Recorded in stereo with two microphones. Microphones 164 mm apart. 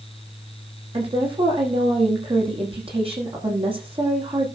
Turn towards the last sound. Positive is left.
turn(degrees=-35)  # may be behind; listen again after turning